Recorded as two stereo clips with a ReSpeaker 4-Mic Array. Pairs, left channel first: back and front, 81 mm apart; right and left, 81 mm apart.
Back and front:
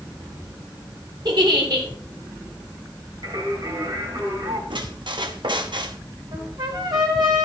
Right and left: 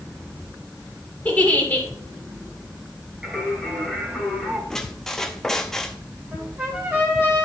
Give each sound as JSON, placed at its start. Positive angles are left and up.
{"t": 1.2, "sound": "a giggle", "azimuth_deg": -20, "distance_m": 2.0}
{"t": 3.2, "sound": "singing", "azimuth_deg": 10, "distance_m": 3.5}
{"t": 4.7, "sound": "a squeak", "azimuth_deg": -5, "distance_m": 0.8}
{"t": 6.3, "sound": "a trumpet", "azimuth_deg": 25, "distance_m": 3.0}